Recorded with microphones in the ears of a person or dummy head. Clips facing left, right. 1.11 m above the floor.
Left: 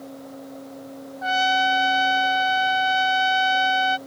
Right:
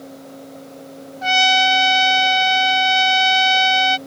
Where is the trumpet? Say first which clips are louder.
Right 3 dB; 35° right (ahead or behind).